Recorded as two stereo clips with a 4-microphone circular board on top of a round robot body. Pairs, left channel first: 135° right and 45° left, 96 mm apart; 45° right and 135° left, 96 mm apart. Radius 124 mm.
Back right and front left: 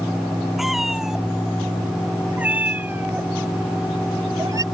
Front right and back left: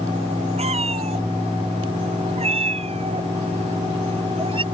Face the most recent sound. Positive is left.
turn(degrees=100)